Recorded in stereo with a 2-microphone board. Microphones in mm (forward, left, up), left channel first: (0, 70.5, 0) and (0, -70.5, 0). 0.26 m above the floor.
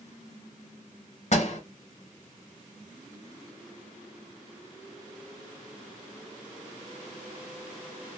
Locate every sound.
1.3 s a door slam: 55° left (ahead or behind), 1.3 m